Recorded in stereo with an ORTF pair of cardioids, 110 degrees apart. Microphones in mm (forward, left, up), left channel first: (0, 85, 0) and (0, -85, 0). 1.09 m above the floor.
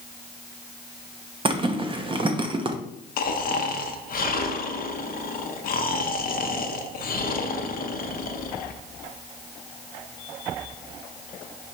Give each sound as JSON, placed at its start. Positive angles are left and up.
{"t": 1.4, "sound": "a zipper", "azimuth_deg": -30, "distance_m": 0.8}
{"t": 3.2, "sound": "snoring", "azimuth_deg": 60, "distance_m": 0.7}